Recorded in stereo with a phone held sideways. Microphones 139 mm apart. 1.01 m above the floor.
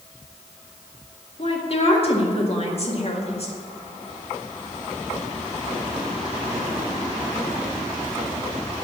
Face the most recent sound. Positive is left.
turn(degrees=45)  # may be behind; listen again after turning